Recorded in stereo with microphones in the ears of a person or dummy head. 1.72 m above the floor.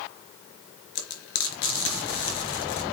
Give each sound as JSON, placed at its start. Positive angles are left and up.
{"t": 0.9, "sound": "frying", "side_deg": 75, "distance_m": 3.5}